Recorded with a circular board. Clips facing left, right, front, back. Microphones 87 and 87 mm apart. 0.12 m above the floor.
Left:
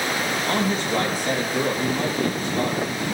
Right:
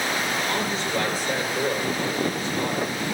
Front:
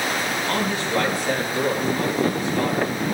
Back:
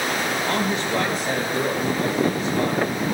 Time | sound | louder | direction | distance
0.5 | a man speaking | left 3 dB, even | 120° left | 3 m